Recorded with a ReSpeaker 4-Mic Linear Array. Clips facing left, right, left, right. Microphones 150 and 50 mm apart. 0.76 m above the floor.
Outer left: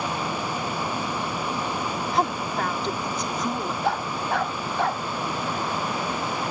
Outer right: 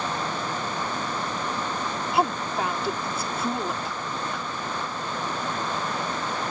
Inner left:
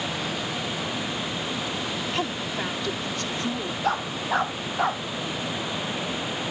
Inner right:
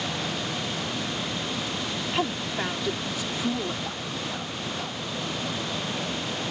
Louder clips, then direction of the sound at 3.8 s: Outer left 6 dB, inner left 7 dB; 65° left (ahead or behind).